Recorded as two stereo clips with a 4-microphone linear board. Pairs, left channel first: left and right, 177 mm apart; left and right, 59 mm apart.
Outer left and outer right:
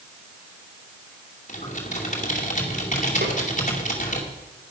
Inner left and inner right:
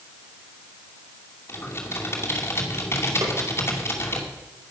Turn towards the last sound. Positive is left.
turn(degrees=-65)  # may be behind; listen again after turning